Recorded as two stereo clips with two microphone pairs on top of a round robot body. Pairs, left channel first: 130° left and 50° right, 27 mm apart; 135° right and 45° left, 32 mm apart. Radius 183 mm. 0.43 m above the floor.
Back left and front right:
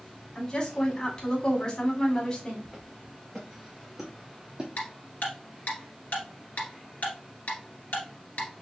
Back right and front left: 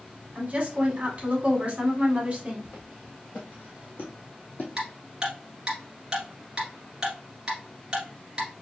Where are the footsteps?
155° right, 2.0 m; by 4.7 s 105° right, 0.9 m.